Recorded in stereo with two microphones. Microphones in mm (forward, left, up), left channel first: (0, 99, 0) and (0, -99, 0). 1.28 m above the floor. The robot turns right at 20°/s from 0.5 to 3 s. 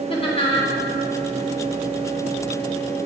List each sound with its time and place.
0.1 s laughter: 30° left (ahead or behind), 2.5 m; by 0.7 s 35° left (ahead or behind), 2.5 m